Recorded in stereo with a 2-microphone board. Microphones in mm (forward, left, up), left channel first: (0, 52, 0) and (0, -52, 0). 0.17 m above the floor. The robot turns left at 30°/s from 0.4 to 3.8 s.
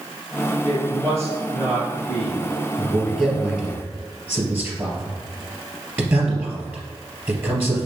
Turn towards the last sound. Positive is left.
turn(degrees=-20)  # may be behind; listen again after turning